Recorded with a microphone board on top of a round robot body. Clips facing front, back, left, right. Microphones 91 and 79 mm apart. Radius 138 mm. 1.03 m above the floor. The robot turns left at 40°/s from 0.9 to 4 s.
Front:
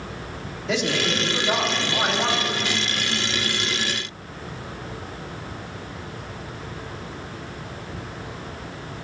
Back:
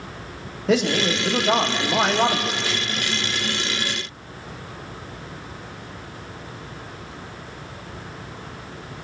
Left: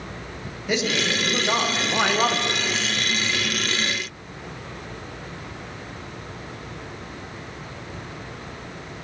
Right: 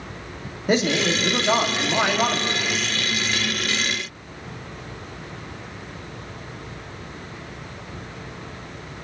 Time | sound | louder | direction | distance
0.7 | a man speaking | back 4 dB, right 4 dB | 140° right | 1.4 m